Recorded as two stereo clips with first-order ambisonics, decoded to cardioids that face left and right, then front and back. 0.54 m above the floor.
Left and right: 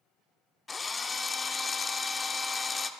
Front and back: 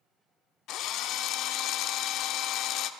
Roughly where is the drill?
Ahead.